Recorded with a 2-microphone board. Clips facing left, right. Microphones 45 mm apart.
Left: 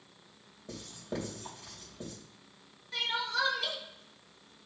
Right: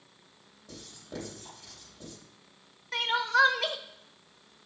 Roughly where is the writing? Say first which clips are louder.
Left 4 dB; left.